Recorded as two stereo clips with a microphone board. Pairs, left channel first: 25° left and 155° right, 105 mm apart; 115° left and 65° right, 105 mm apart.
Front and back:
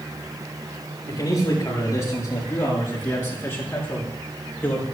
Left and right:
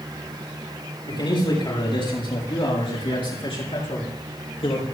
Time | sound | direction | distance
1.1 | a man speaking | 75° left | 7 m